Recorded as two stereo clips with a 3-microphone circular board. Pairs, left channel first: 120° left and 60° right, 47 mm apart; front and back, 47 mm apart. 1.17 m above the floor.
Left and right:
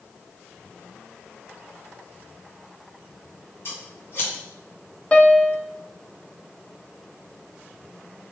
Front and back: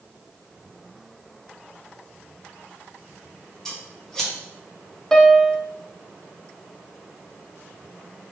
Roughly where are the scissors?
Left.